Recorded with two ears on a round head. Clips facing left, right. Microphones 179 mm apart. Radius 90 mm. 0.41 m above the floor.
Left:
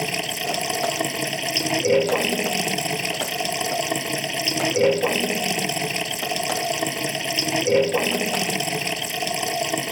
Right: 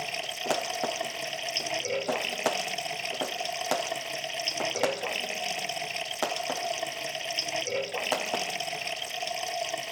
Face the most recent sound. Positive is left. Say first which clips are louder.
# left 8 dB
turn(degrees=70)  # may be behind; listen again after turning